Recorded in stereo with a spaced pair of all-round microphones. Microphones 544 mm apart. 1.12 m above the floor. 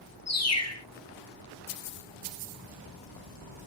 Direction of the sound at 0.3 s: 30° left (ahead or behind).